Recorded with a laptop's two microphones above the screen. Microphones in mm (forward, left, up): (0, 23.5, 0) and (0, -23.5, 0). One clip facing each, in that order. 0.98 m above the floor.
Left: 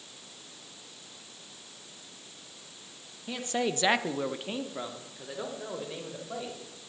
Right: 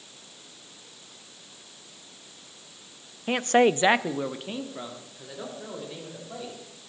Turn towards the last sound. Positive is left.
turn(degrees=15)  # may be behind; listen again after turning